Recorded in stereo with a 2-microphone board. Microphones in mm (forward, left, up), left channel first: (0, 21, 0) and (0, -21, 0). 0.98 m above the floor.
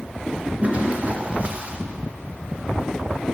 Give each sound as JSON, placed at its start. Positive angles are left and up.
{"t": 0.6, "sound": "a toilet flushing", "side_deg": -35, "distance_m": 1.2}